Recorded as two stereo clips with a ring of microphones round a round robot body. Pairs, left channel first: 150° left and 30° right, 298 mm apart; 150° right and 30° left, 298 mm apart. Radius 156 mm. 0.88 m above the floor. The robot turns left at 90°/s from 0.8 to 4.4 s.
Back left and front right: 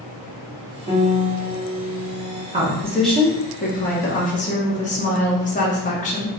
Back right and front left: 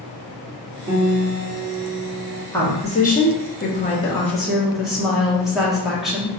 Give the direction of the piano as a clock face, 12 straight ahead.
11 o'clock.